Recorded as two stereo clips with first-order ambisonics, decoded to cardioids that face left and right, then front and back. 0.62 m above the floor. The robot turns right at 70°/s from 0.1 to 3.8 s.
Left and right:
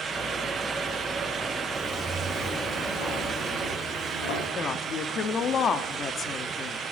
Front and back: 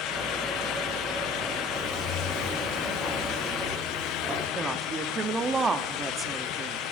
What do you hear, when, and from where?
1.7 s footsteps: 30° right, 5 m; by 4.5 s 105° left, 8 m
4.5 s a woman speaking: 120° left, 0.8 m